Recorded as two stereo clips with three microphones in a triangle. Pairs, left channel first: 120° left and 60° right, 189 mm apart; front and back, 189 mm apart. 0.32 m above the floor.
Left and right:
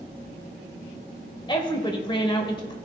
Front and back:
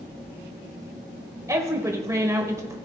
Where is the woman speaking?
130° left, 0.9 m.